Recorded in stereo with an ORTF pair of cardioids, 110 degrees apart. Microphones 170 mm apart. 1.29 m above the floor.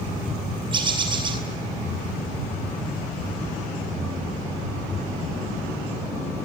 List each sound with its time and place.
0.7 s a bird: 30° right, 5 m